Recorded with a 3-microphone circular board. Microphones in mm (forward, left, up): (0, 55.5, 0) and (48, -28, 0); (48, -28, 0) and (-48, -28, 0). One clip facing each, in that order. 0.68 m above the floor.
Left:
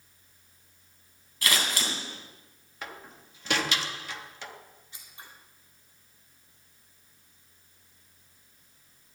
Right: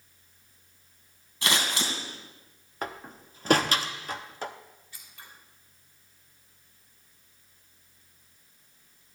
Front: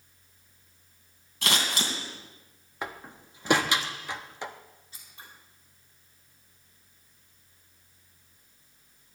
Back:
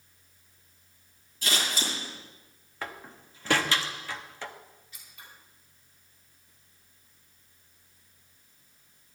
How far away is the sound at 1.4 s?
About 2.5 m.